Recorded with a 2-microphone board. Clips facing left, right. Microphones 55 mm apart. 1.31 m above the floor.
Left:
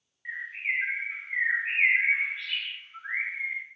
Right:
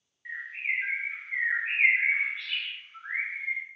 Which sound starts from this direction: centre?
A bird, at 0.2 s.